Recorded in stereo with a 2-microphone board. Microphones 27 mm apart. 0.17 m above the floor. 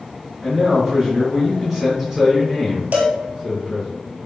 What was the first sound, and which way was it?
A man speaking, 20° right (ahead or behind).